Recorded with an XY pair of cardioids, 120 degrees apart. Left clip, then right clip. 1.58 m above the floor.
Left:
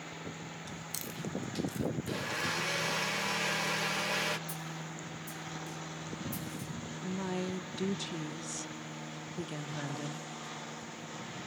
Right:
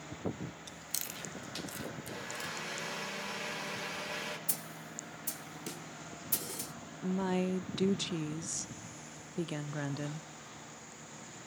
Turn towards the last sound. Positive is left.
turn(degrees=-25)